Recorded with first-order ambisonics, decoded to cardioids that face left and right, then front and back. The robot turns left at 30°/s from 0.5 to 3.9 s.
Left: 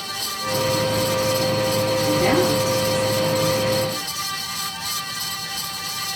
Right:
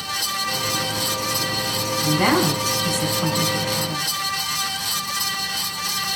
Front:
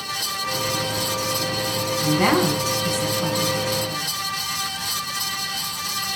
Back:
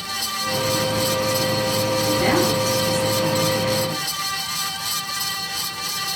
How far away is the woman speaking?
About 7 m.